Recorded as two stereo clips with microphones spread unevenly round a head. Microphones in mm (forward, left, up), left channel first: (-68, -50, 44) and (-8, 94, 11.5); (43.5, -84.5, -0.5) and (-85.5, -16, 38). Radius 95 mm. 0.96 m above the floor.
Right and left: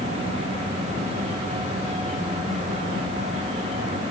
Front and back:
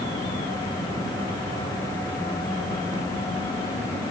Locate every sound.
Only background noise.